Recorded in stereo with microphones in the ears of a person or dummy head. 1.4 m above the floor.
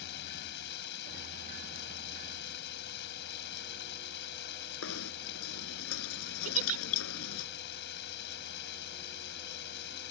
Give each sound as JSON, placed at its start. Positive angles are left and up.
{"t": 0.0, "sound": "running water", "side_deg": 60}
{"t": 4.8, "sound": "knocking", "side_deg": 80}
{"t": 6.5, "sound": "a giggle", "side_deg": -45}